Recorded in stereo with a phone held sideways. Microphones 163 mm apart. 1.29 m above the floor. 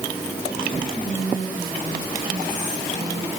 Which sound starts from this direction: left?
Whispering, at 0.9 s.